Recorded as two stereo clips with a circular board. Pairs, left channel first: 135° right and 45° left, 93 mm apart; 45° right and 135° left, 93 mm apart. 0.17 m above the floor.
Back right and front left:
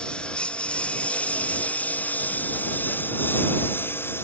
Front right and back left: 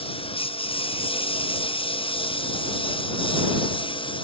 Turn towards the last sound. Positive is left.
turn(degrees=-70)